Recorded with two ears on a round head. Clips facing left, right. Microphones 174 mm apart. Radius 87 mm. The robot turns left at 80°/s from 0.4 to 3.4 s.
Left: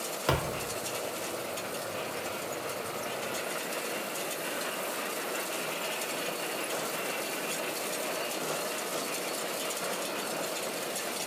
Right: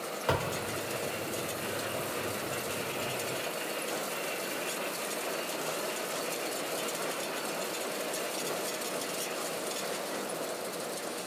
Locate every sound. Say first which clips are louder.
0.3 s a thud: left 1 dB; 35° left (ahead or behind), 0.9 m; by 0.7 s 20° left (ahead or behind), 0.9 m